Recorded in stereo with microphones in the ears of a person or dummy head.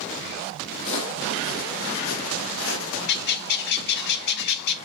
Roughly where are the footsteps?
Left.